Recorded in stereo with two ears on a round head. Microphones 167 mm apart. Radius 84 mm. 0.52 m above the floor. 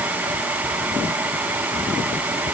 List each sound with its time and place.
Only background noise.